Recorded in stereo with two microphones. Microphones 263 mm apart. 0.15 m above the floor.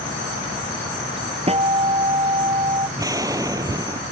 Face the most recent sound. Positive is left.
turn(degrees=-15)  # may be behind; listen again after turning